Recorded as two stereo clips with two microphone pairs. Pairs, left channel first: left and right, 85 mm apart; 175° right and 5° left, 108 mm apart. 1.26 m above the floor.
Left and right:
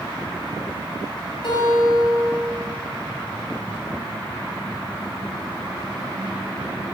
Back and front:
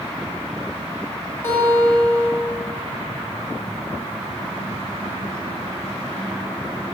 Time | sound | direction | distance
1.4 | a guitar | 115° left | 2.5 m